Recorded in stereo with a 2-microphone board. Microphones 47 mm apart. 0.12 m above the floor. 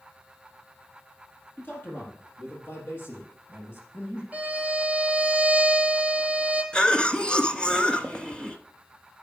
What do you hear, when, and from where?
1.6 s a man speaking: 45° left (ahead or behind), 4 m; by 4.2 s 65° left (ahead or behind), 5.5 m
4.3 s a violin: 25° right (ahead or behind), 2.5 m
6.7 s a cough: 20° left (ahead or behind), 1.2 m